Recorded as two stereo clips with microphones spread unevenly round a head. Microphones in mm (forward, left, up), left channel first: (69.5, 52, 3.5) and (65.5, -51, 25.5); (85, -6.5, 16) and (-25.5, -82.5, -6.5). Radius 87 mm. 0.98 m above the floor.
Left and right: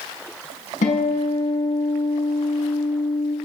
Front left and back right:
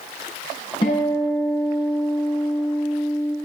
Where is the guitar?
95° left, 5.5 m.